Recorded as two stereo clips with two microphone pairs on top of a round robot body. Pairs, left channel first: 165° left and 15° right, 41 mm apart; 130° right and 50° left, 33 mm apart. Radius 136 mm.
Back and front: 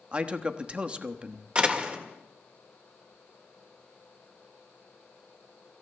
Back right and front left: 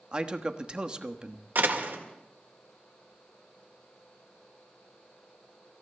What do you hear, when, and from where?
0.1 s a man speaking: 20° left, 1.2 m
1.6 s a door slam: 45° left, 1.8 m